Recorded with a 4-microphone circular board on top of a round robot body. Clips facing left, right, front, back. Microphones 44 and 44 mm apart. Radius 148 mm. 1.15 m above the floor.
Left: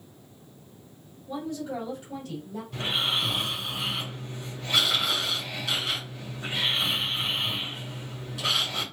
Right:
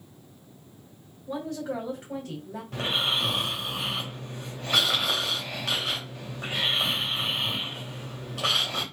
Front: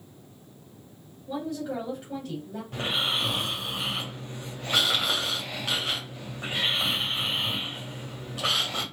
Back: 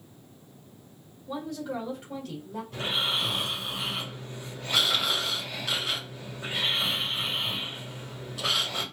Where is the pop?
I don't hear a pop.